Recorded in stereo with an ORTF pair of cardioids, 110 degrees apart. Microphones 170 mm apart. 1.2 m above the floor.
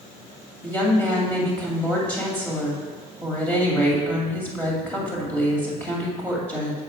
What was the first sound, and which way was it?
A woman speaking, 10° left.